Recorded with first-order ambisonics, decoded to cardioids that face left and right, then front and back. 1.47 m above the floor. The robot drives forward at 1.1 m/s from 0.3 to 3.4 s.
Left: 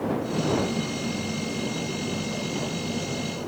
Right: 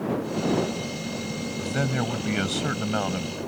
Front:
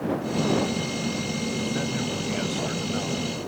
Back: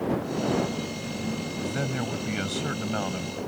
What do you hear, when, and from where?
1.6 s a man speaking: 100° right; by 3.4 s 110° right